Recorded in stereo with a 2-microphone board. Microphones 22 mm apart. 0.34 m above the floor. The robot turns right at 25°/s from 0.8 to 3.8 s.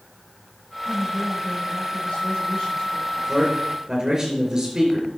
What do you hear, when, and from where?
0.8 s a woman speaking: 80° left, 5 m; by 3.0 s 135° left, 5 m
3.1 s a man speaking: 5° right (ahead or behind), 5 m; by 5.1 s 20° right (ahead or behind), 5 m